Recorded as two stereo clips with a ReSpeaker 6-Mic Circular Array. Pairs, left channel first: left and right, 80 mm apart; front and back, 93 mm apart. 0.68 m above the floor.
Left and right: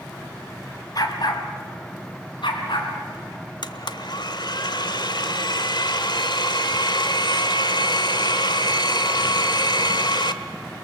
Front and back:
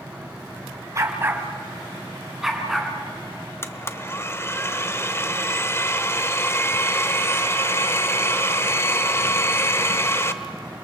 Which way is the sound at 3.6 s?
65° left.